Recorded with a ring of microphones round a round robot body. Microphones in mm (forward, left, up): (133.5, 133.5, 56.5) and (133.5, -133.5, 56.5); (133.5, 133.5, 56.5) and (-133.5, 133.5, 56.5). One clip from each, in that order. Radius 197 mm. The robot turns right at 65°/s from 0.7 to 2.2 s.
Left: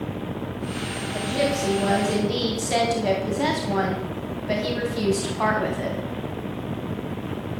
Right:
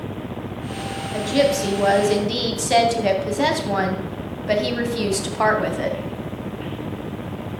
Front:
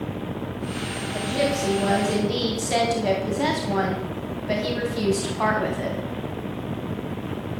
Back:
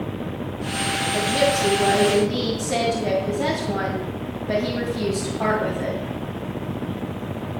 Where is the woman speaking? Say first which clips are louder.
Right 5 dB, back 3 dB; 125° right, 2.5 m; by 6.0 s 55° right, 2.5 m.